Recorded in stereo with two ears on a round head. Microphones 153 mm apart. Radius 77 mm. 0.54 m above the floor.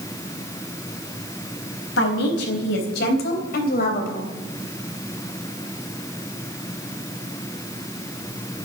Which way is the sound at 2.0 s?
70° left (ahead or behind).